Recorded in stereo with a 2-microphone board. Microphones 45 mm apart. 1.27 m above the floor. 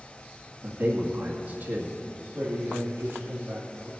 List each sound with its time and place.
0.6 s a man speaking: 45° right (ahead or behind), 1.8 m
2.3 s a man speaking: 45° right (ahead or behind), 3 m